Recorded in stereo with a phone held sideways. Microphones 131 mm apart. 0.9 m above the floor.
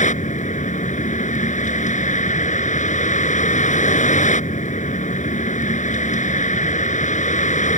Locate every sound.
0.0 s a vehicle: 75° left (ahead or behind)